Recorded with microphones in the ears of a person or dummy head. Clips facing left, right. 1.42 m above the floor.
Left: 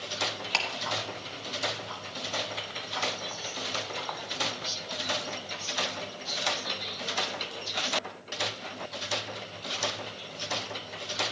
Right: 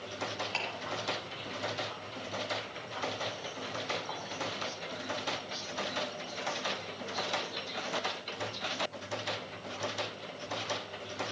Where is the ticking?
70° left (ahead or behind), 1.5 m.